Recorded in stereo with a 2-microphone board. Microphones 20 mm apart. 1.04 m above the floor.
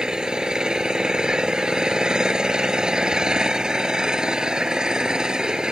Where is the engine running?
45° right (ahead or behind).